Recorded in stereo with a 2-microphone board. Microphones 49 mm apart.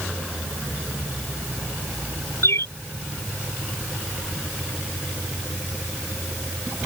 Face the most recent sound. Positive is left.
turn(degrees=70)  # may be behind; listen again after turning